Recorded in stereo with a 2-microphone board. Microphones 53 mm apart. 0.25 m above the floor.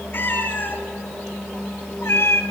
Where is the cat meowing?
40° left (ahead or behind), 3 m; by 2.4 s 55° left (ahead or behind), 1.4 m.